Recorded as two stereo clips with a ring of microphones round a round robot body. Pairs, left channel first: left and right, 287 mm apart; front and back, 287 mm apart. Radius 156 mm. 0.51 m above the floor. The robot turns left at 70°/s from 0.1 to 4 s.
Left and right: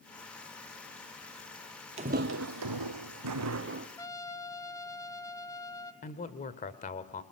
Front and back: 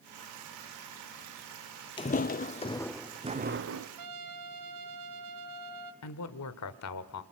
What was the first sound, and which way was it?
Footsteps, 50° right.